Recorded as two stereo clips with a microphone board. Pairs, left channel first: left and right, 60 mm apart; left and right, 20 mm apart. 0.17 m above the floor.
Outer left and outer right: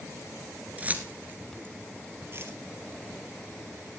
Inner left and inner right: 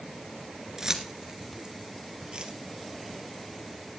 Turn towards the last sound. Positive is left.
turn(degrees=-40)  # may be behind; listen again after turning